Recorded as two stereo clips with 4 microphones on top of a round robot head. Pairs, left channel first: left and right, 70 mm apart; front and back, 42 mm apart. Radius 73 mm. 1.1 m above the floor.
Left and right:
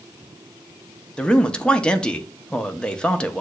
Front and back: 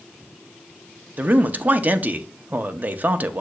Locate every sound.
1.2 s a man speaking: 160° left, 0.6 m